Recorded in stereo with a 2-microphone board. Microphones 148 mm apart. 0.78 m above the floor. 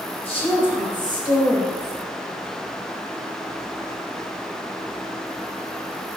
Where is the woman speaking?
45° left (ahead or behind), 3 m; by 1.9 s 20° left (ahead or behind), 5 m.